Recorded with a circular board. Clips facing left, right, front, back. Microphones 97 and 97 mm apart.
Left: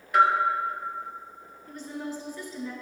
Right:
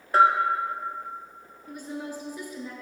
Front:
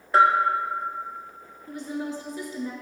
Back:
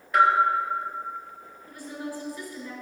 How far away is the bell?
About 0.8 m.